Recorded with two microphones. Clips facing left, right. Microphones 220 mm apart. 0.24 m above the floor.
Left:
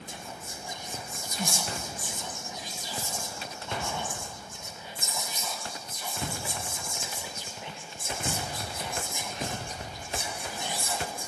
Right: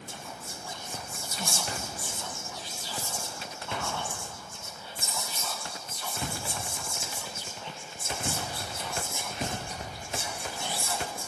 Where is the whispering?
15° left (ahead or behind), 1.7 m.